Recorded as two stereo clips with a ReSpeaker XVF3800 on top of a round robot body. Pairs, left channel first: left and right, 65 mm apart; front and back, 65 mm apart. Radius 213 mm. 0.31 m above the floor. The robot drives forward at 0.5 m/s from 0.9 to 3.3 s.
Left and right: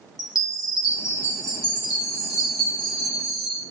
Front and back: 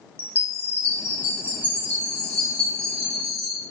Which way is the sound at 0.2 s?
60° left.